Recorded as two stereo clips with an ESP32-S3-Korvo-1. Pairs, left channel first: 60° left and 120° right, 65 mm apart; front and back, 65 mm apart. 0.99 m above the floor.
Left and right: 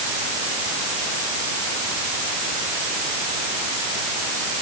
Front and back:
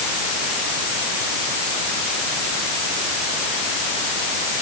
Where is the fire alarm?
No fire alarm in this recording.